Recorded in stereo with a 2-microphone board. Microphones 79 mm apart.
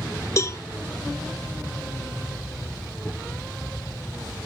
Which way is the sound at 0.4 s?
40° left (ahead or behind).